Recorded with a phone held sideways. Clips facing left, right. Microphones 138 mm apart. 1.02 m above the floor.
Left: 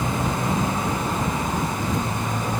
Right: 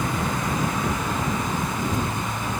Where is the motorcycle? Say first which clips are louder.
Left 1 dB; 25° left (ahead or behind); by 2.6 s 35° left (ahead or behind).